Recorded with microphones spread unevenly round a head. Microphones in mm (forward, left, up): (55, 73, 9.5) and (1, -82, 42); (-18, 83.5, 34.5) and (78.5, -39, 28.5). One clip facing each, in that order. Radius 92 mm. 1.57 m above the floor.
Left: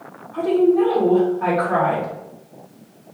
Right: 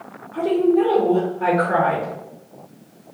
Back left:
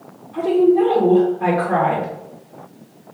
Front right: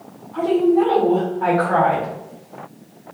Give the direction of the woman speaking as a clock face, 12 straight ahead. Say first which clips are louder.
Left 1 dB, back left 2 dB; 6 o'clock.